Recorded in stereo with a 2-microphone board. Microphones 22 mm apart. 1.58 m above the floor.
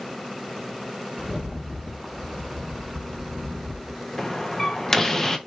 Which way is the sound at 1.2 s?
5° left (ahead or behind).